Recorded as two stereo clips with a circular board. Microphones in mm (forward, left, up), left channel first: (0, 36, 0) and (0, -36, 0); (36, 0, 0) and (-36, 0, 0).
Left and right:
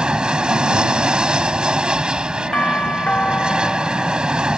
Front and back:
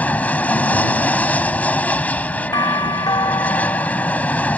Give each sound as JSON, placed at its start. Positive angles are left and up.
{"t": 0.0, "sound": "an aircraft", "azimuth_deg": -30}
{"t": 2.5, "sound": "a doorbell", "azimuth_deg": 20}